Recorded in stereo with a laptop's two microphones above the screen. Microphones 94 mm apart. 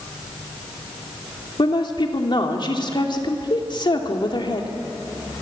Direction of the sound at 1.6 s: 55° left (ahead or behind).